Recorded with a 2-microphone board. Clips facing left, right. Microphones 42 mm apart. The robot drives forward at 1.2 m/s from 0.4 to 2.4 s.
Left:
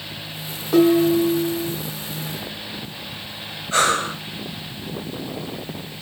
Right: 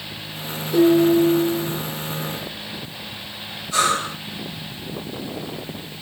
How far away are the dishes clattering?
About 6.5 m.